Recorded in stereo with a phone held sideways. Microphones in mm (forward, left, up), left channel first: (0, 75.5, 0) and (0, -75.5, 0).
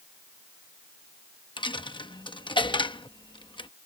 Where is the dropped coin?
30° left (ahead or behind).